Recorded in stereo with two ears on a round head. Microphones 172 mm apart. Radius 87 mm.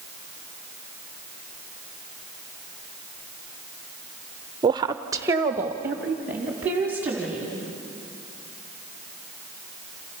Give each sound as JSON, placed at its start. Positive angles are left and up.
{"t": 4.6, "sound": "a woman speaking", "side_deg": -20, "distance_m": 0.5}